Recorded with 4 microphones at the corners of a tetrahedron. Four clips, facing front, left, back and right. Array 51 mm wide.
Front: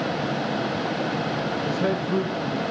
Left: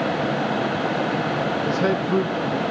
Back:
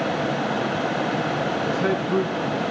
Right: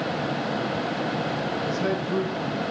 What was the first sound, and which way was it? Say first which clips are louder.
A man speaking: left 5 dB, even; 70° left.